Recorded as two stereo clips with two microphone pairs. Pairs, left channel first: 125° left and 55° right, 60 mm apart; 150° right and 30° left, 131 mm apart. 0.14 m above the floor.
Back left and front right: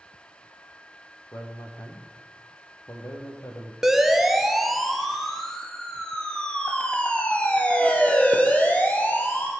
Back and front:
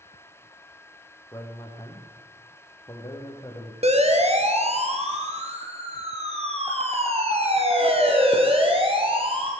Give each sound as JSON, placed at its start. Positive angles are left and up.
{"t": 1.3, "sound": "a man speaking", "azimuth_deg": 145, "distance_m": 5.5}
{"t": 3.8, "sound": "a siren", "azimuth_deg": 30, "distance_m": 3.0}